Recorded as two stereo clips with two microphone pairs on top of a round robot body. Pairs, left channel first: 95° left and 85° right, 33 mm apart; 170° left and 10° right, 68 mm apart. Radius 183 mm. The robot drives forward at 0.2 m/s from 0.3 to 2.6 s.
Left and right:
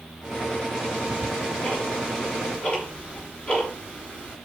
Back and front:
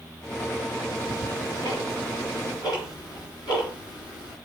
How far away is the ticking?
About 3 m.